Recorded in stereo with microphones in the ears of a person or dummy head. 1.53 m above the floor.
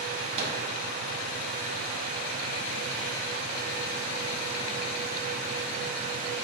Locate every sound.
0.4 s a microwave: 35° right (ahead or behind), 0.6 m